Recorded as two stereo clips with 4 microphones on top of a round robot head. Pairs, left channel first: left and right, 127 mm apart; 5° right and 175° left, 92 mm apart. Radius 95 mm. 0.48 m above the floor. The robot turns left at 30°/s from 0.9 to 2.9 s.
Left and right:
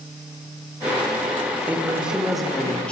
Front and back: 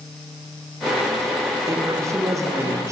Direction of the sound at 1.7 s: 155° right.